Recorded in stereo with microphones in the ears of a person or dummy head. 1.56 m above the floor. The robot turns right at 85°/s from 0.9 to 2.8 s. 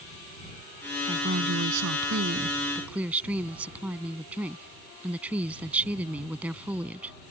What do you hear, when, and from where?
1.1 s a woman speaking: 155° right; by 7.2 s 5° right